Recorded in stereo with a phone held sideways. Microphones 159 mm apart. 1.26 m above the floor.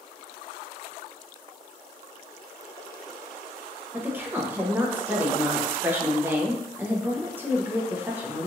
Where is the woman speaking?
10° right (ahead or behind), 0.6 m.